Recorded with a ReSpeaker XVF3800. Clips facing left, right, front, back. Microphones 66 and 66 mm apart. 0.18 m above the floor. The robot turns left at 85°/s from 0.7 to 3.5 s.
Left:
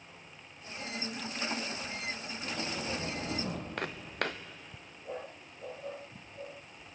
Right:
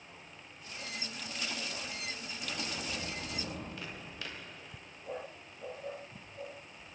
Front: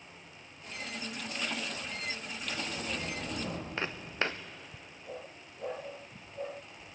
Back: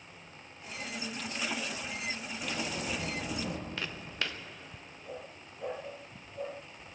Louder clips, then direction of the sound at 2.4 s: Left 3 dB, back 2 dB; 175° right.